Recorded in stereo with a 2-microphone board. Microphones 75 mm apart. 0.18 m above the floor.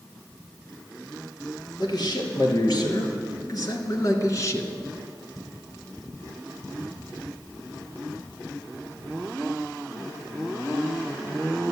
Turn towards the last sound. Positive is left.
turn(degrees=40)  # may be behind; listen again after turning